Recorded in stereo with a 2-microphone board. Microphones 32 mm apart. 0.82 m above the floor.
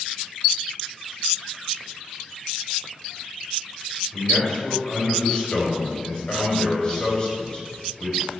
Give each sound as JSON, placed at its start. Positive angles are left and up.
{"t": 4.1, "sound": "a man speaking", "side_deg": 25, "distance_m": 3.5}